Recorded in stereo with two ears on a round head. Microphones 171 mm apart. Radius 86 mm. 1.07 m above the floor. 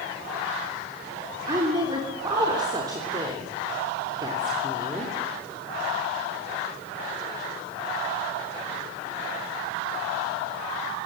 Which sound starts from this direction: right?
A woman speaking, at 1.5 s.